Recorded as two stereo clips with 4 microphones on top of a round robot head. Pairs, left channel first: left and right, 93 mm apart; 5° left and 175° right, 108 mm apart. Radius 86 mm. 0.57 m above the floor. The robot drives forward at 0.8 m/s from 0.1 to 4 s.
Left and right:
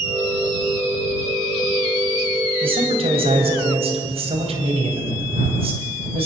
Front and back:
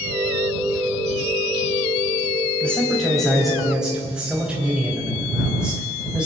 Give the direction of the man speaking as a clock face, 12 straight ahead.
3 o'clock.